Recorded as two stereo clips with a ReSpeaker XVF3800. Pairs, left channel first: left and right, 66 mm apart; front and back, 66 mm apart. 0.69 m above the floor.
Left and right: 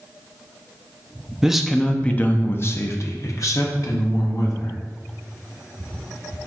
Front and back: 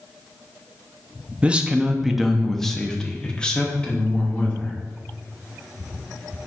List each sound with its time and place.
1.4 s a man speaking: 155° right, 0.6 m; by 4.7 s 70° left, 1.6 m